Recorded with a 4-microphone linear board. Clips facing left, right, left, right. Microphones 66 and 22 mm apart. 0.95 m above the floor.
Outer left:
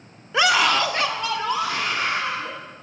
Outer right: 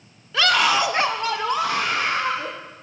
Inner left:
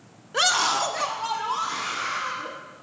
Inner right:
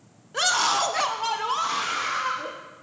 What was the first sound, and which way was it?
A scream, 20° left (ahead or behind).